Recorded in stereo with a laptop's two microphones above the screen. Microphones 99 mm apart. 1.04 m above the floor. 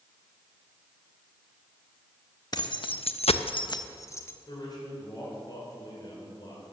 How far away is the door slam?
I don't hear a door slam.